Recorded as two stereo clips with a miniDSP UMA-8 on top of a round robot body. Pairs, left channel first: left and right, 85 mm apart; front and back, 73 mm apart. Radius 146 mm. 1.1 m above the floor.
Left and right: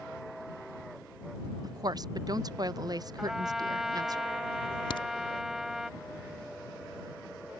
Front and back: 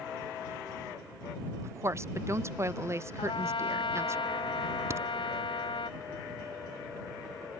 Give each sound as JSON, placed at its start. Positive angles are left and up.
{"t": 1.6, "sound": "a woman speaking", "azimuth_deg": -130}
{"t": 3.2, "sound": "a trumpet", "azimuth_deg": -5}
{"t": 4.9, "sound": "a crack", "azimuth_deg": 120}